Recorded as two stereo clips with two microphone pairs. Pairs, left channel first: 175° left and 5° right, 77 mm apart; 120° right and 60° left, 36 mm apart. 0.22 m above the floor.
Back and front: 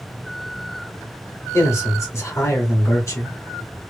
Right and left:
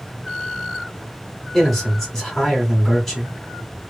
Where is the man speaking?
155° left, 1.5 m.